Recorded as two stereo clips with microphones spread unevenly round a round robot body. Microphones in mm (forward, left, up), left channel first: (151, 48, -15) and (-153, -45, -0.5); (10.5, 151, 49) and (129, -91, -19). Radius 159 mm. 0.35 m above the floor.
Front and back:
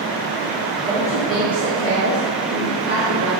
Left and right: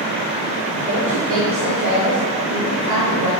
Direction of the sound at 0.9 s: 70° right.